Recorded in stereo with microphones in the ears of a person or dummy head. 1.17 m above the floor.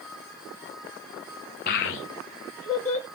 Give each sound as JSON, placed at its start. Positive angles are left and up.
{"t": 1.7, "sound": "a child speaking", "side_deg": 50, "distance_m": 0.6}